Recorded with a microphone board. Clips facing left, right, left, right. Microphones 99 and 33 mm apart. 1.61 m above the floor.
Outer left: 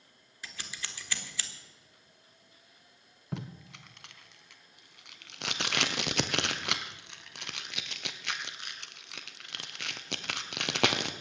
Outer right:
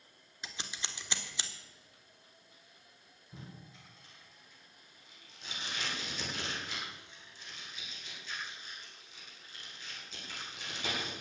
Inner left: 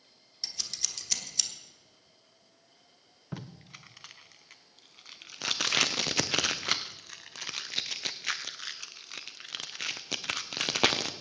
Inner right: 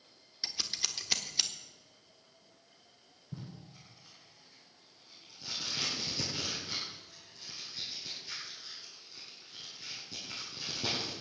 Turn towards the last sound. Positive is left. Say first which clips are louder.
# outer left 10 dB, inner left 4 dB
turn(degrees=80)